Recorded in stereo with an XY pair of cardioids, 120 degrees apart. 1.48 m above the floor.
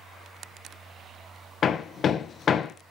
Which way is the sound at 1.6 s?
45° left.